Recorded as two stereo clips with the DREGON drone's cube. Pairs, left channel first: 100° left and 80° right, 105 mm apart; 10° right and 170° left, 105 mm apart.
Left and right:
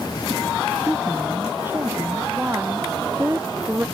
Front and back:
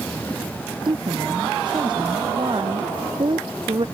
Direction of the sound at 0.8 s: 150° right.